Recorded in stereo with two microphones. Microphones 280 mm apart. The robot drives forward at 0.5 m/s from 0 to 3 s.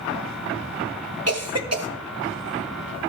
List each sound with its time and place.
1.3 s a cough: 55° right (ahead or behind), 1.6 m; by 1.9 s 60° right (ahead or behind), 1.5 m